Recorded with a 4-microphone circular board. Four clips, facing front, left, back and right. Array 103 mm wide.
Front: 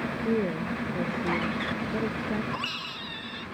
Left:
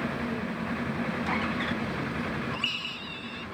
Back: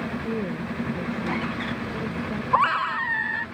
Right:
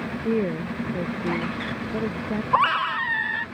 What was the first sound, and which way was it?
A woman speaking, 65° right.